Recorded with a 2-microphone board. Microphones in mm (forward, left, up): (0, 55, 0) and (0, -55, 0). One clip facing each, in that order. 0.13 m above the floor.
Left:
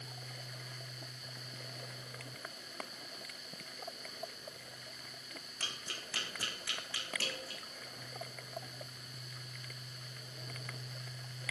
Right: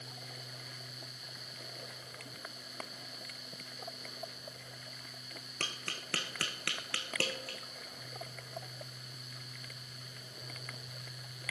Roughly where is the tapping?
Right.